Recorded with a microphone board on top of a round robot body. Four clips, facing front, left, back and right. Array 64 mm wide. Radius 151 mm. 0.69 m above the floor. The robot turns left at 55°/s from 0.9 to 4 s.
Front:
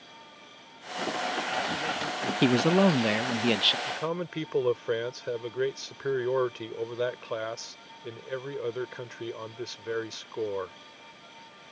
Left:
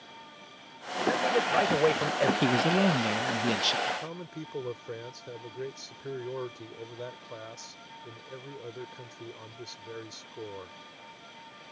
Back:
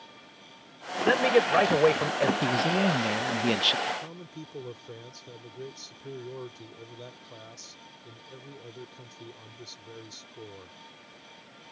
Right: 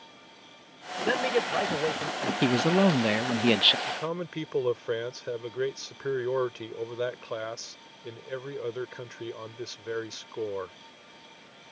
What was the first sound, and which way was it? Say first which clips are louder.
A man speaking: even, back 10 dB; 160° right.